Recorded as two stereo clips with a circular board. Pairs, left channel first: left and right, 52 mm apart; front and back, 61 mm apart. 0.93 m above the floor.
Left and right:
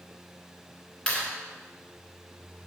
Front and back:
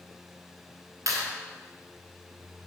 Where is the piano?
I don't hear a piano.